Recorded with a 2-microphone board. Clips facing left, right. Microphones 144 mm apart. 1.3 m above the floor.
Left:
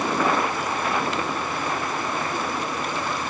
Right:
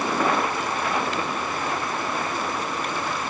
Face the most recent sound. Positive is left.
No sound to turn to.